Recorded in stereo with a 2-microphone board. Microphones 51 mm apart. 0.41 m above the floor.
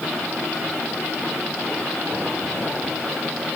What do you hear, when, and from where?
Only background noise.